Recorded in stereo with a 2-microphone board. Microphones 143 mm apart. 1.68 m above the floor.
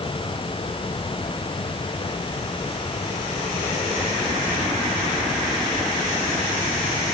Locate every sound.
Only background noise.